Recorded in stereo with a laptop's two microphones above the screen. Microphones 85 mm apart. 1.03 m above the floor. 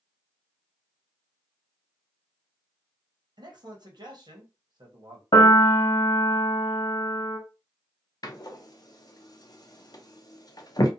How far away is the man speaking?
About 1.0 m.